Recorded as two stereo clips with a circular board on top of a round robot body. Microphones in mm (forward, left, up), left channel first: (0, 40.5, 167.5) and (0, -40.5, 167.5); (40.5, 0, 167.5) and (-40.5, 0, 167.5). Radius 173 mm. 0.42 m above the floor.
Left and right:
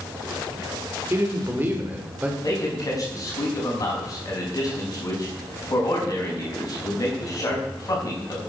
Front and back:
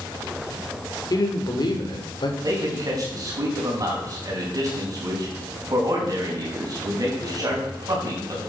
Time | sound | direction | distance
1.1 | a man speaking | 35° right | 2.5 m
2.4 | a man speaking | 135° left | 4.5 m